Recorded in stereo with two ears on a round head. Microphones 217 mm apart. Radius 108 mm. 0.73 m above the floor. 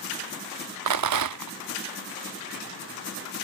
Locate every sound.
0.9 s a rattle: 80° right